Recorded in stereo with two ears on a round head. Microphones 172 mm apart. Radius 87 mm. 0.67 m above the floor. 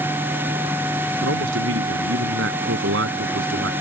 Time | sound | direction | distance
1.2 | a man speaking | 65° right (ahead or behind) | ?